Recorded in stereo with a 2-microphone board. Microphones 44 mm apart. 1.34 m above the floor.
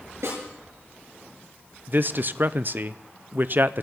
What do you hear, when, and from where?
0.2 s a snare drum: 75° right (ahead or behind), 8.5 m
1.9 s a man speaking: 45° right (ahead or behind), 0.6 m